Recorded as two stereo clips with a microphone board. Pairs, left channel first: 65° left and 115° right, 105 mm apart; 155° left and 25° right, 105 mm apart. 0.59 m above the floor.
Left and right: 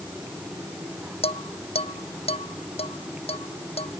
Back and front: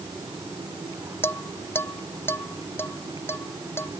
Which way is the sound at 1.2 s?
90° left.